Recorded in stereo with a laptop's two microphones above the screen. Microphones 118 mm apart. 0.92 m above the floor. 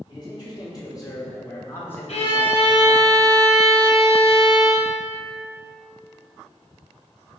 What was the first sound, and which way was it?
A man speaking, 40° left (ahead or behind).